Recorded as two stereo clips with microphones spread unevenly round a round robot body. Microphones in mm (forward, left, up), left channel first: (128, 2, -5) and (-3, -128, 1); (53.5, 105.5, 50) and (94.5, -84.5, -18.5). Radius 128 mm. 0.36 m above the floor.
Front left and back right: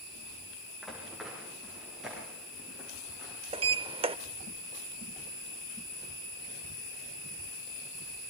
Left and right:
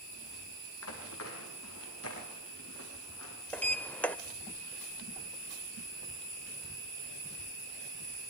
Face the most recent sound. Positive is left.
turn(degrees=-140)